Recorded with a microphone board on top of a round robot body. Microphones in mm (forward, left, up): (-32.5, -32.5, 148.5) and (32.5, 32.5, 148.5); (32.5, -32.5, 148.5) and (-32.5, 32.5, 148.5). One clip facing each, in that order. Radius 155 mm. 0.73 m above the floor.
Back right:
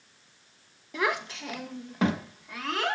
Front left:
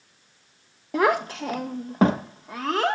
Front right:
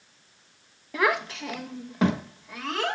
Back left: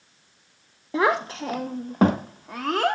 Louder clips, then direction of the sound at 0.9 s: Front left 8 dB, back left 3 dB; 80° left.